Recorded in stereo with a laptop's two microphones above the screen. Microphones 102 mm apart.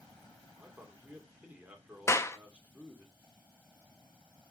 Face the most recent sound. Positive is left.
turn(degrees=30)  # may be behind; listen again after turning